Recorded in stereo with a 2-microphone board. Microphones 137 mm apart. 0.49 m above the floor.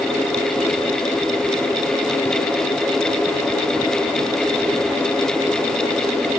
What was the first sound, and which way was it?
Only background noise.